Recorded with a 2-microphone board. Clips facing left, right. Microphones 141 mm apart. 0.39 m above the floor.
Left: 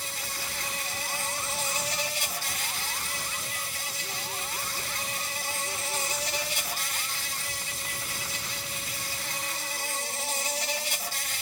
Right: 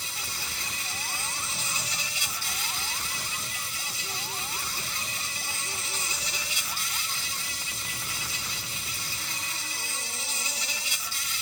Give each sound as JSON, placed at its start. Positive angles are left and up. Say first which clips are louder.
{"t": 0.0, "sound": "an insect", "louder": "left 2 dB", "side_deg": 55}